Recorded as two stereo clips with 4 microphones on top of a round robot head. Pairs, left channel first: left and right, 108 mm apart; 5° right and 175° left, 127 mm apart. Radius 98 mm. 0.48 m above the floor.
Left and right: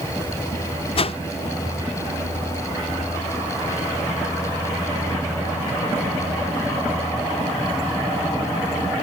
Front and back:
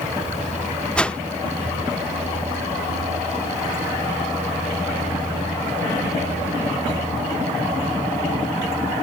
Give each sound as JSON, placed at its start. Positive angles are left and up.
{"t": 1.0, "sound": "a whoosh", "azimuth_deg": 75}